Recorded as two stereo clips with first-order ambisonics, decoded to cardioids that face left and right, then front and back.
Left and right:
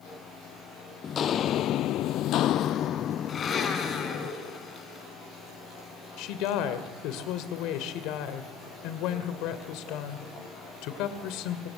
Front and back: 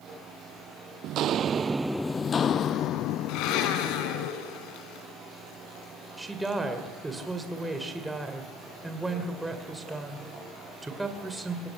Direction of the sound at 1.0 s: 150° left.